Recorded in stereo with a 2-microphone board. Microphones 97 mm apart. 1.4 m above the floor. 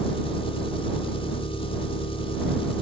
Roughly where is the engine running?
Left.